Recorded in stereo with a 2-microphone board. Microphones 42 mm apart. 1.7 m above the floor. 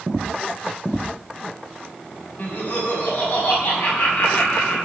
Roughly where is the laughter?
Left.